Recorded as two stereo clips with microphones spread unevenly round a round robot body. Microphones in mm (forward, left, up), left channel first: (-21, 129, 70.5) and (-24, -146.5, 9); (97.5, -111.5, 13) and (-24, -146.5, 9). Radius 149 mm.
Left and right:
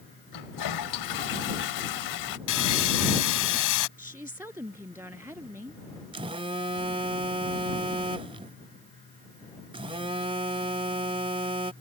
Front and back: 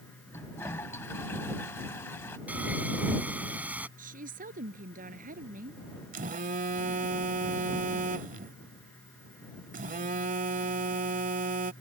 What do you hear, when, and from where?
0.3 s a toilet flushing: 95° left
2.5 s sawing: 115° left
4.0 s a woman speaking: 170° right
6.1 s a phone buzzing: 160° right